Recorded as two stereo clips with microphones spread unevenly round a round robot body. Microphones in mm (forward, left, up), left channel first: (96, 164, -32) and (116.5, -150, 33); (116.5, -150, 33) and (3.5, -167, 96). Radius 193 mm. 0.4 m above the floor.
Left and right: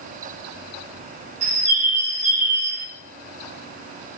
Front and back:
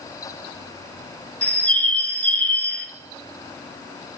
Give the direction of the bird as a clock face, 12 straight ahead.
1 o'clock.